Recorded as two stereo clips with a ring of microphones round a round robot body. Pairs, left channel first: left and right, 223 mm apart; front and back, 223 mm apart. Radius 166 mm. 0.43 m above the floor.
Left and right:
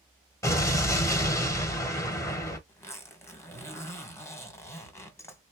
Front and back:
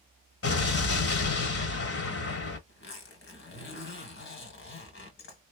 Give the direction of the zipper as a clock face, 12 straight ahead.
12 o'clock.